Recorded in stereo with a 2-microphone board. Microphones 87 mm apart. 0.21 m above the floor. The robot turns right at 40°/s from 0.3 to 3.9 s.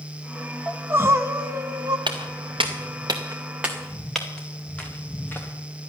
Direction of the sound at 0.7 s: 155° right.